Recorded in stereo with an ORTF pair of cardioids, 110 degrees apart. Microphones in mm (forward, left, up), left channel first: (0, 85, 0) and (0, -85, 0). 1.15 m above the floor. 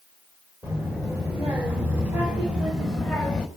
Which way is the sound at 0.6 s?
20° right.